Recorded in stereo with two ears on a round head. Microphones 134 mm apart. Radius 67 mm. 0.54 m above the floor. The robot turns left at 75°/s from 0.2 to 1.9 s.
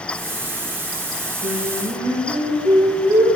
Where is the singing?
115° right, 9.5 m; by 3.3 s 155° right, 9.5 m.